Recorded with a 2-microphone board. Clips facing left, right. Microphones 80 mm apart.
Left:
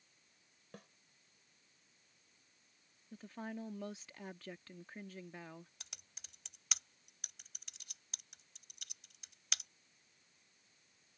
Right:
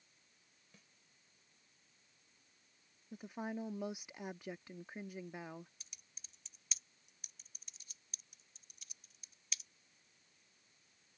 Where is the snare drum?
65° left (ahead or behind).